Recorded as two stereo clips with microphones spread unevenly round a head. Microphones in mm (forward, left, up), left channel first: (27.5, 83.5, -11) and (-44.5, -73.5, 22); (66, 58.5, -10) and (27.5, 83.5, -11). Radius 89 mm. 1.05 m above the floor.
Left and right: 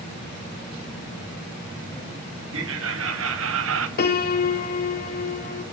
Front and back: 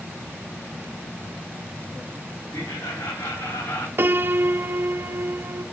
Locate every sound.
2.5 s laughter: 95° right, 2 m; by 3.9 s 105° right, 1.1 m
4.0 s a piano: 105° left, 0.8 m